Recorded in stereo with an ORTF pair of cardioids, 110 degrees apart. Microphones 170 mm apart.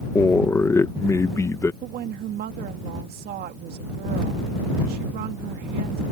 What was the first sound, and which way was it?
A man speaking, 15° left.